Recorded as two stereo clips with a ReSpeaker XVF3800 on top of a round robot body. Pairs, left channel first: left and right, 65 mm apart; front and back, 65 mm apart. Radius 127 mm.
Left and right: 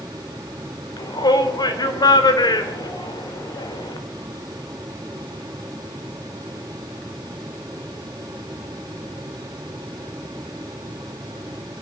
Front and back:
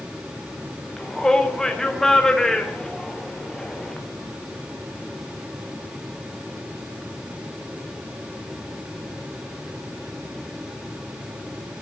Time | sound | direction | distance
1.0 | a shout | 85° left | 4 m